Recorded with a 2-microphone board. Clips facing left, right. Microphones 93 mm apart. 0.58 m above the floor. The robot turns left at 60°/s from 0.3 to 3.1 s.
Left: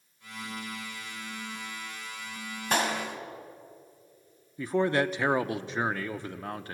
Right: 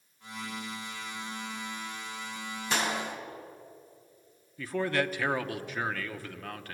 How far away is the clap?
About 3.5 m.